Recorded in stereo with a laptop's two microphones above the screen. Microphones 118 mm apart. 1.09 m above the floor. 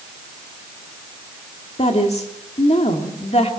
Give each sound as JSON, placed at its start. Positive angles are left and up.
{"t": 1.8, "sound": "a woman speaking", "side_deg": 65, "distance_m": 2.0}